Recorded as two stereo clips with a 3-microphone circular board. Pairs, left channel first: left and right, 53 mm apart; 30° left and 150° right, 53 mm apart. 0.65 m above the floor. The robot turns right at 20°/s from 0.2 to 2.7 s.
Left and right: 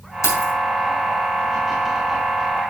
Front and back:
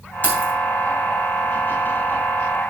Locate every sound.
0.2 s keys jangling: 80° left, 3.5 m; by 0.5 s 90° left, 3.5 m